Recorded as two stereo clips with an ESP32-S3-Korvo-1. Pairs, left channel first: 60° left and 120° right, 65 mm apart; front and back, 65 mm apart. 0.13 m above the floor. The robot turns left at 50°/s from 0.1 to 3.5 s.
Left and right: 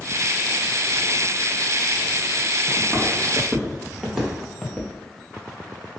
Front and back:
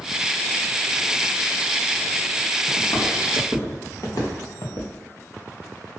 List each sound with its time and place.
2.8 s footsteps: 20° right, 1.6 m; by 4.9 s 15° right, 1.0 m